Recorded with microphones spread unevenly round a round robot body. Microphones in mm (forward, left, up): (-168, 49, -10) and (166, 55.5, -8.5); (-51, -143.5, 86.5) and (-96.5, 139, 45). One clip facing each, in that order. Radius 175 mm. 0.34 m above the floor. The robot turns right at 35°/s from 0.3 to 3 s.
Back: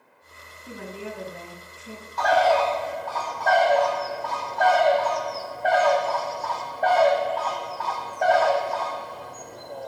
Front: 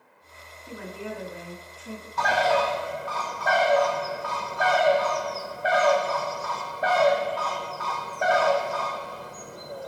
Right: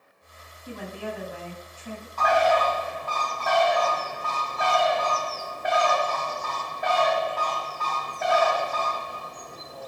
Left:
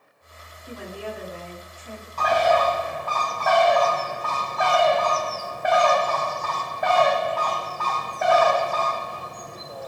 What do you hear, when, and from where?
0.7 s a woman speaking: 130° right, 3 m; by 2.1 s 80° right, 3 m
2.2 s a bird: 55° left, 0.7 m; by 9.9 s 80° left, 0.7 m